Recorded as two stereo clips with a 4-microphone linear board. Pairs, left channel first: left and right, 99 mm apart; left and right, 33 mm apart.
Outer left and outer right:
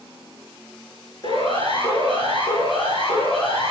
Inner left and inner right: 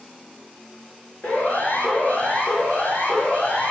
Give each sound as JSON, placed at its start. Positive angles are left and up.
{"t": 1.2, "sound": "a siren", "side_deg": 55, "distance_m": 9.5}